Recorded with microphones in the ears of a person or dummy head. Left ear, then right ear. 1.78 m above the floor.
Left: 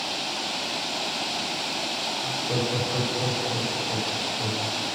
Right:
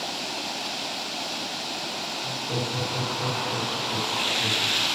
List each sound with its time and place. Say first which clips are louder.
2.2 s laughter: left 2 dB; 45° left (ahead or behind), 10 m